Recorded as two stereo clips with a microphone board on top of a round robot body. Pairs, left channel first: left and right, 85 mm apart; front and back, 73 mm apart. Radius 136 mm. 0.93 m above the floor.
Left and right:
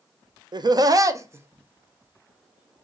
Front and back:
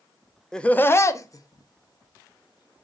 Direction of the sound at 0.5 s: 80° right.